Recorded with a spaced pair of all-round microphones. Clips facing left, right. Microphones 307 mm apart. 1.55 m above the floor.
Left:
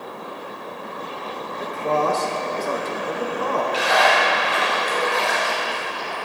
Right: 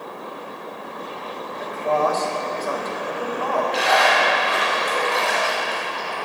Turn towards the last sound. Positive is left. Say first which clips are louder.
# even
turn(degrees=-85)